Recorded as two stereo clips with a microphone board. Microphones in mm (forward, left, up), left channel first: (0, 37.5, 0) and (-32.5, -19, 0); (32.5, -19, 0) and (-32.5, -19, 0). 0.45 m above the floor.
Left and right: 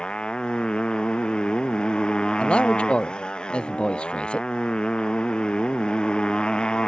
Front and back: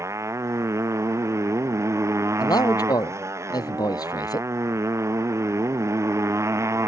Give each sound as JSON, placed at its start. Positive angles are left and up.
{"t": 0.0, "sound": "a motorcycle", "azimuth_deg": 135}
{"t": 2.4, "sound": "a man speaking", "azimuth_deg": -15}